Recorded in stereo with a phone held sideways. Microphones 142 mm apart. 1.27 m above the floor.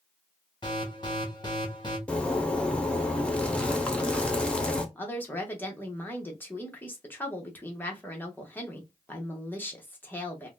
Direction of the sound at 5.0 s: 15° left (ahead or behind).